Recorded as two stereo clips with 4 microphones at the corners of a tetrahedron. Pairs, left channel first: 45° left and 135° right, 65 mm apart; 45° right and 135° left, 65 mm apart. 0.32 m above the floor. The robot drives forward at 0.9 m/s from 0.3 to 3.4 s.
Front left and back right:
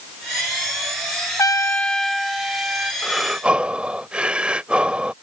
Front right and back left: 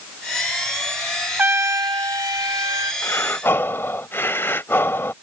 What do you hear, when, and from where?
1.4 s a trumpet: 75° left; by 2.9 s 155° left
3.0 s breathing: 40° right; by 5.1 s 70° right